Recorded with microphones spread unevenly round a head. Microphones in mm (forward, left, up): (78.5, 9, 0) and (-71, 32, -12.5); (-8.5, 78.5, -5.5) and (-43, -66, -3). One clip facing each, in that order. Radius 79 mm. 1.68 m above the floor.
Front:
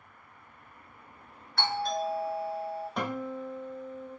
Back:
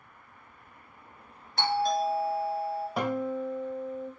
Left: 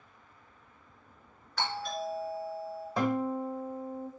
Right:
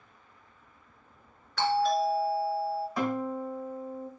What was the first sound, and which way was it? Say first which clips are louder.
A doorbell: back 4 dB, right 10 dB; 120° right.